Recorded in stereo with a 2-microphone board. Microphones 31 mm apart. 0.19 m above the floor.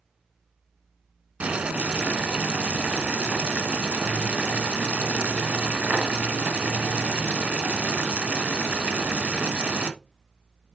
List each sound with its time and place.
1.4 s boiling: 50° right (ahead or behind), 1.0 m